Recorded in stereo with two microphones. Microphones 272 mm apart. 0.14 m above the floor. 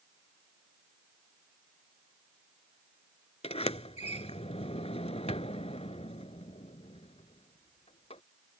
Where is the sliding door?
25° left (ahead or behind).